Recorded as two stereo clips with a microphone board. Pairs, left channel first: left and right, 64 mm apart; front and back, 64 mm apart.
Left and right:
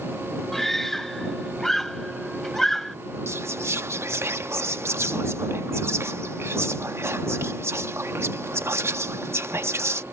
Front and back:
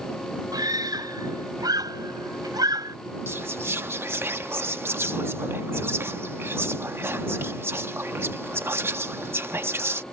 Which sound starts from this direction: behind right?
Whispering, at 3.3 s.